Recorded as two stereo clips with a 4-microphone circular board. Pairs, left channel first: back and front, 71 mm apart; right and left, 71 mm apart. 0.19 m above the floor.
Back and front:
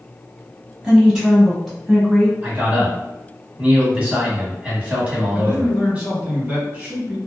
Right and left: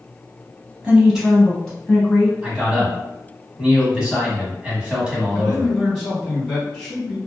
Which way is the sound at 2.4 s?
30° left.